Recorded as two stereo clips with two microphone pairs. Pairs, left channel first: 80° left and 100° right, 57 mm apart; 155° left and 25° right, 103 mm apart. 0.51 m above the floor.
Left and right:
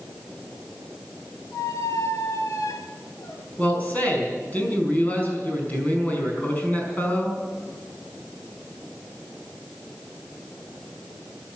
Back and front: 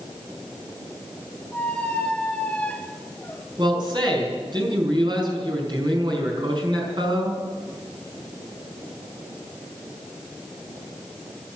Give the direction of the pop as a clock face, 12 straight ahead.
No pop in this recording.